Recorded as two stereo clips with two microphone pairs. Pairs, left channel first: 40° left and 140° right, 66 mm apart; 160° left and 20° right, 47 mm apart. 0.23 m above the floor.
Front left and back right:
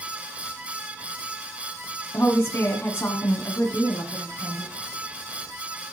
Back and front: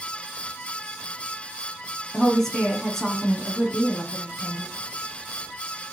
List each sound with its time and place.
2.1 s a woman speaking: 85° left, 1.7 m